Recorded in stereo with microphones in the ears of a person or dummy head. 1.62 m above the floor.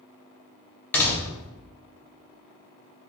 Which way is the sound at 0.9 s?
10° left (ahead or behind).